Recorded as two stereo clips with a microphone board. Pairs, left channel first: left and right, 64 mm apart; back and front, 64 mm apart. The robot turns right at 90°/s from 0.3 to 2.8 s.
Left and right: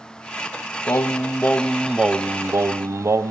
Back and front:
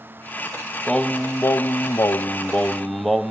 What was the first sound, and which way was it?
Singing, 95° left.